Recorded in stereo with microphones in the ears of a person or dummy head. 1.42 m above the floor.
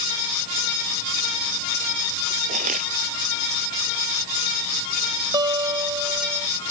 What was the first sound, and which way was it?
Crushing, 40° right (ahead or behind).